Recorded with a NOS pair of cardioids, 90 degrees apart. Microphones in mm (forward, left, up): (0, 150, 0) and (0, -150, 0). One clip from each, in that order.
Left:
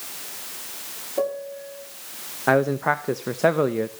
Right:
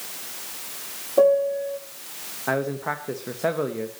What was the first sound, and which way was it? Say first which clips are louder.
A piano: right 9 dB; 35° right.